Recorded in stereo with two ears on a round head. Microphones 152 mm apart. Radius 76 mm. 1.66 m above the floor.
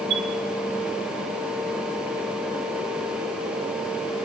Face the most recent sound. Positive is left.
turn(degrees=-70)  # may be behind; listen again after turning